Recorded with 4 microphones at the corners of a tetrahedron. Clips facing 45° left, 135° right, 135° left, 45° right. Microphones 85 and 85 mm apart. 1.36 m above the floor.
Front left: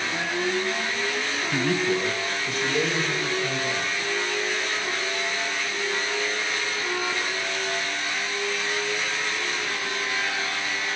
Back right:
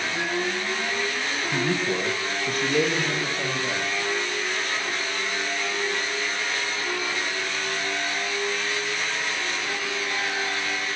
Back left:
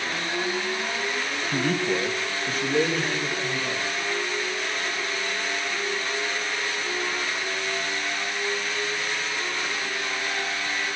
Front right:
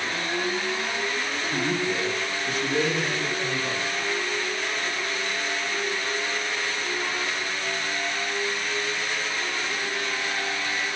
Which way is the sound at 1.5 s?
140° left.